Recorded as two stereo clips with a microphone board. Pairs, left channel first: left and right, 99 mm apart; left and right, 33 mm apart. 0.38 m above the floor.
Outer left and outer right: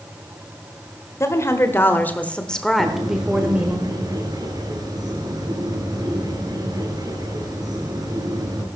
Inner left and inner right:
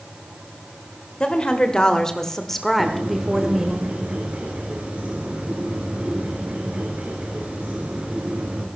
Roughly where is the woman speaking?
Left.